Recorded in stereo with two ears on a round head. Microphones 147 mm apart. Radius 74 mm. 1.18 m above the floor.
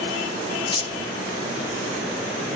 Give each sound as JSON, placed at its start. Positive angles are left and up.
{"t": 0.7, "sound": "keys jangling", "side_deg": 30, "distance_m": 0.9}